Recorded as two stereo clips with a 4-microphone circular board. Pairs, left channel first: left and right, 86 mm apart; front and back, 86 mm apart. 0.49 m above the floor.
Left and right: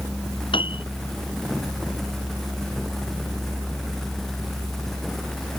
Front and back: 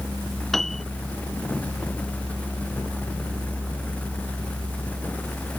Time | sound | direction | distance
0.5 | a piano | 85° left | ?